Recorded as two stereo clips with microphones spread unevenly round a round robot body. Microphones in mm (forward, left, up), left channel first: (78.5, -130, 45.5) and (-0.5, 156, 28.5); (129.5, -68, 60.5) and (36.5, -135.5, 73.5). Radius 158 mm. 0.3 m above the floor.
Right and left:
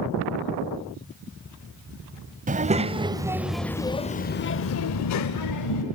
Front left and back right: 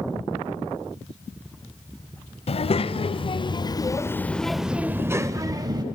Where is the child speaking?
45° left, 1.1 m; by 5.8 s 85° right, 1.1 m.